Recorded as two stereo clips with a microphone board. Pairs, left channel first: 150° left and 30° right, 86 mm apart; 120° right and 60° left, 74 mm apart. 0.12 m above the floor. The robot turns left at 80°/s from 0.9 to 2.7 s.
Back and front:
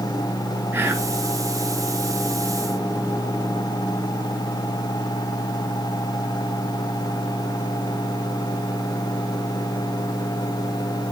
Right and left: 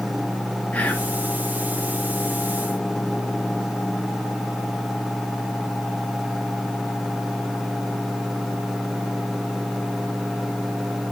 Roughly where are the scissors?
I don't hear scissors.